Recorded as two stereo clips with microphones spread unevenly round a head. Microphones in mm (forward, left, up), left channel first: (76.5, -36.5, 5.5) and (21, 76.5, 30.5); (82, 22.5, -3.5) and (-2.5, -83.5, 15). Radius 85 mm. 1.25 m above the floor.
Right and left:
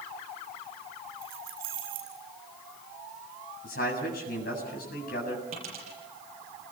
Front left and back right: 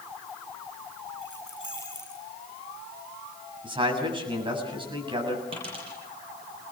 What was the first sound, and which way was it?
Keys jangling, 145° left.